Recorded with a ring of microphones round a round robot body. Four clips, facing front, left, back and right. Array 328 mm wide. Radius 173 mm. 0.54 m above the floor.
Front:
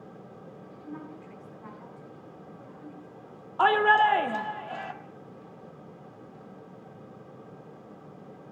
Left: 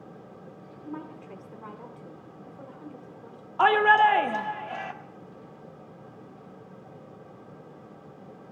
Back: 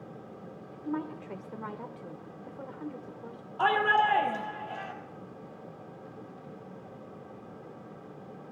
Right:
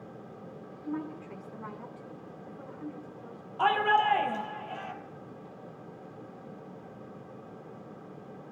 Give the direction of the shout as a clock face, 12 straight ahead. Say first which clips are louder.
Left 6 dB, front 4 dB; 10 o'clock.